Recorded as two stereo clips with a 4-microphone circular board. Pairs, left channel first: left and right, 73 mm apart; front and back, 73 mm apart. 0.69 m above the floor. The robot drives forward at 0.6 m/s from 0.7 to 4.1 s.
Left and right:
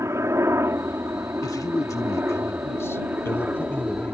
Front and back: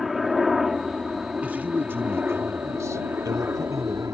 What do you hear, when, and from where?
0.0 s a helicopter: 95° right; by 4.1 s 150° right
1.4 s a man speaking: 115° left; by 4.1 s 150° left